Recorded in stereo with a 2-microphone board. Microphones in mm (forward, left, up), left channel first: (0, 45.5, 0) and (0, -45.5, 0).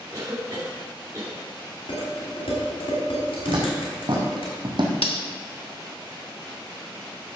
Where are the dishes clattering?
90° left, 4.5 m.